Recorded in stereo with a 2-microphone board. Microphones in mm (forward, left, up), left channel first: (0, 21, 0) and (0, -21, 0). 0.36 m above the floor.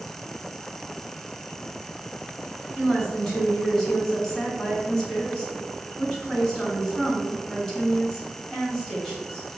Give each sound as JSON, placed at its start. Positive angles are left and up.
{"t": 2.8, "sound": "a woman speaking", "side_deg": 5, "distance_m": 2.0}